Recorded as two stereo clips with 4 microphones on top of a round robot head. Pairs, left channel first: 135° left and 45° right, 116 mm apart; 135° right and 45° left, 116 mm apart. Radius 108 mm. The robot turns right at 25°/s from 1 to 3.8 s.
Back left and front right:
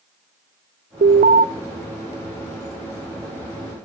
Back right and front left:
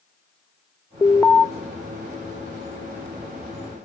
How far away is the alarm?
About 0.6 m.